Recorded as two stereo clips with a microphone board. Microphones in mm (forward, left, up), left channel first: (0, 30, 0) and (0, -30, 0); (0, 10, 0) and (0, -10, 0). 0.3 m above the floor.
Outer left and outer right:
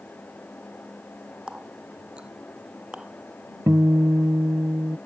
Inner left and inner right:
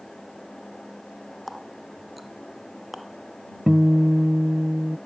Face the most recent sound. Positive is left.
turn(degrees=-60)  # may be behind; listen again after turning